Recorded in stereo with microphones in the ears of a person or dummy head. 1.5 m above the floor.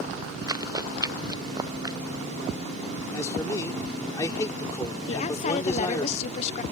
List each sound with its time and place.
0.5 s running footsteps: 20° right (ahead or behind); by 2.0 s 25° right (ahead or behind)
3.1 s a man speaking: 15° left (ahead or behind)
5.1 s a woman speaking: 35° left (ahead or behind)